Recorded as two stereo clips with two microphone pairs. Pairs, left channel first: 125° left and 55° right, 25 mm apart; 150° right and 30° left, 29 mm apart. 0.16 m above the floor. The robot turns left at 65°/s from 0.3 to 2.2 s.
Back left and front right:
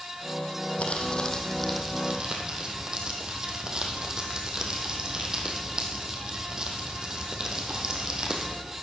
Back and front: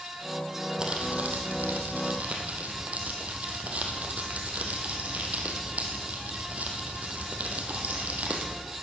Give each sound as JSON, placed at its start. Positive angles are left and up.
{"t": 0.8, "sound": "crumpling", "azimuth_deg": 95, "distance_m": 2.0}